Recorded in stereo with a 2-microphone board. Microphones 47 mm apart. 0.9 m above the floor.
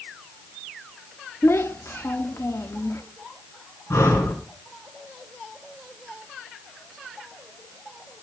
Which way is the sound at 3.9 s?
85° left.